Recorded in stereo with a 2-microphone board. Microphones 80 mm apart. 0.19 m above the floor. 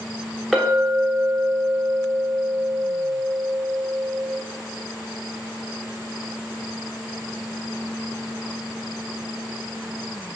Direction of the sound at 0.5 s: Centre (ahead or behind).